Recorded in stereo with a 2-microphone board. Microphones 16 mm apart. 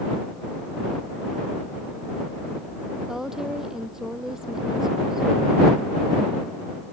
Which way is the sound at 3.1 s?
30° right (ahead or behind).